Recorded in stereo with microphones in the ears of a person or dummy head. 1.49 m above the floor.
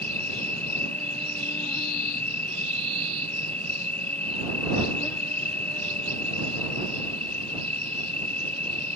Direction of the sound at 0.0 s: 5° left (ahead or behind).